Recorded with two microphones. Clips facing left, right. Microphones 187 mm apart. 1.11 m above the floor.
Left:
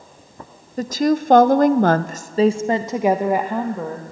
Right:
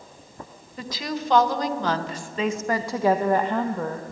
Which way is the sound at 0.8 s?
45° left (ahead or behind).